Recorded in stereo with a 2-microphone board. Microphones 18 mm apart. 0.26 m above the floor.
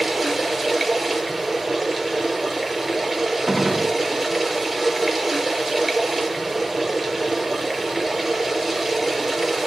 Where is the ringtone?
No ringtone in this recording.